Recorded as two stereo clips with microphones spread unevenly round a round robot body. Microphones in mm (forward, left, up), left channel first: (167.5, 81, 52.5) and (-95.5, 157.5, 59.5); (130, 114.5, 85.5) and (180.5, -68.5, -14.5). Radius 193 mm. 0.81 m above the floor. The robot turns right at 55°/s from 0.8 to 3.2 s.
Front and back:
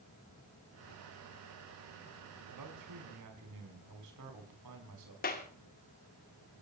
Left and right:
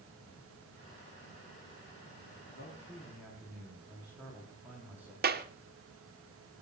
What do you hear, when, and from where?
2.5 s a man speaking: 160° left, 6 m; by 5.1 s 160° right, 6 m
5.2 s a clap: 80° right, 2 m